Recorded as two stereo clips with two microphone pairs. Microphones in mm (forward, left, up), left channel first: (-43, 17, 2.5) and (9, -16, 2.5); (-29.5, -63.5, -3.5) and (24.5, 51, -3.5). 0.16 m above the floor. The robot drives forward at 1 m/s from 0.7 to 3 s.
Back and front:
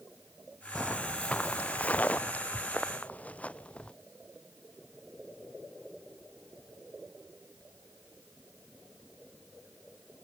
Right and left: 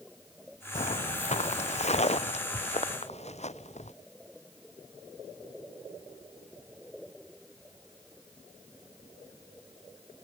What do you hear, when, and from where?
0.8 s footsteps: 135° right; by 3.9 s 140° right